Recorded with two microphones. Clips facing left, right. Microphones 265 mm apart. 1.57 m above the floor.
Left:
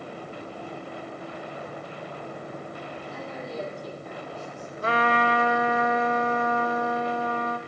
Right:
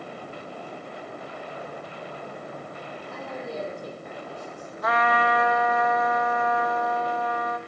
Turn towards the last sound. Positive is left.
turn(degrees=30)  # may be behind; listen again after turning